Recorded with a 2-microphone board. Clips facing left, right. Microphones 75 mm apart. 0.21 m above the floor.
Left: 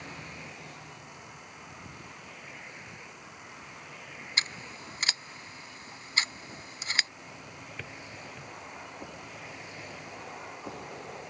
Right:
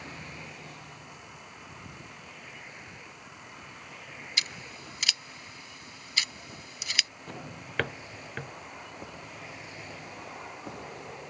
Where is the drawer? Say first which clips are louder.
Right 3 dB; 70° right (ahead or behind).